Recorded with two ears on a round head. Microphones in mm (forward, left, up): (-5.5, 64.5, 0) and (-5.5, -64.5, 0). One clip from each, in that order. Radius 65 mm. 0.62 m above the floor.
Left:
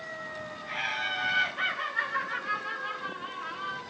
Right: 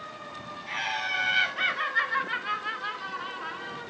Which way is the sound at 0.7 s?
70° right (ahead or behind).